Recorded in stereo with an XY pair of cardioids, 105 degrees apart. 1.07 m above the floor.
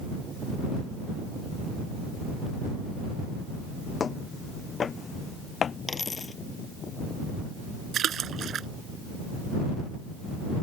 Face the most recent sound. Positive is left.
turn(degrees=-55)